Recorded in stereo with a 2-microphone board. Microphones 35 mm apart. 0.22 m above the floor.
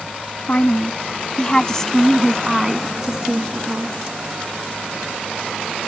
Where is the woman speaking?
45° left (ahead or behind); by 4.0 s 30° right (ahead or behind).